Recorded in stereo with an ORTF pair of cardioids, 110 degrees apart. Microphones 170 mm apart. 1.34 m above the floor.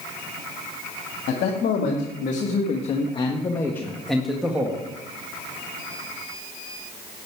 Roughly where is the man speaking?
Ahead left.